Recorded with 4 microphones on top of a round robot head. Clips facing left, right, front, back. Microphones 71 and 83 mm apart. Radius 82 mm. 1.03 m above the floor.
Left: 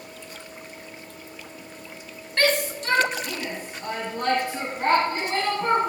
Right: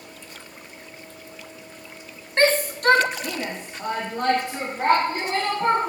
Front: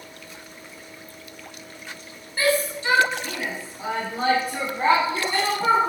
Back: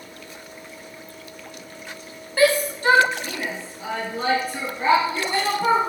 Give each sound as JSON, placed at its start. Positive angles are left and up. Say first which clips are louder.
{"t": 2.4, "sound": "a shout", "louder": "right 3 dB, back 4 dB", "azimuth_deg": -155, "distance_m": 1.5}